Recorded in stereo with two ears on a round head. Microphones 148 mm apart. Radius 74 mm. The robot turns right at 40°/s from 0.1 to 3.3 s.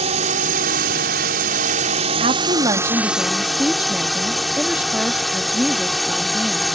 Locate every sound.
0.0 s a drone: 130° right; by 6.8 s straight ahead
2.2 s a woman speaking: 55° right; by 6.7 s 10° right